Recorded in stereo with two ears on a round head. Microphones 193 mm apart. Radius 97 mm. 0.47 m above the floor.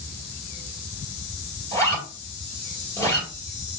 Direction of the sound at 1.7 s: 15° left (ahead or behind).